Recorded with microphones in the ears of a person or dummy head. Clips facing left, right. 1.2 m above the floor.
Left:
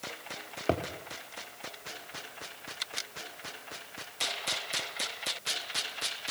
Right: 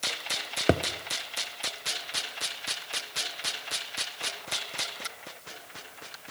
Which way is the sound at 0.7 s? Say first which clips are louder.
Right 5 dB; 20° right (ahead or behind).